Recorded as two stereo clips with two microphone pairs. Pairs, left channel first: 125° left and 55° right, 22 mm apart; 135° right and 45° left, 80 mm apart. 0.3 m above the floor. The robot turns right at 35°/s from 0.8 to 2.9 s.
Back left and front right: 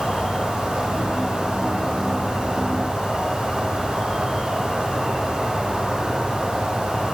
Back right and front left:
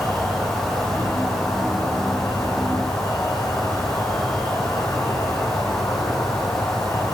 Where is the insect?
130° left, 3.5 m; by 7.2 s 155° right, 3.5 m.